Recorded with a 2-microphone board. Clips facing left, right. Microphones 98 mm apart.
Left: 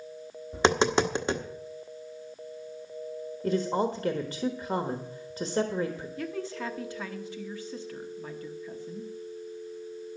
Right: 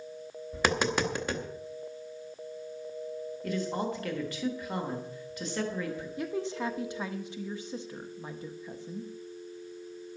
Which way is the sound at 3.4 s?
30° left (ahead or behind).